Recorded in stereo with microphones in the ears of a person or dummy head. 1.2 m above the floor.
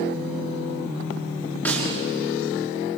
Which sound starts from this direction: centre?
A snare drum, at 1.6 s.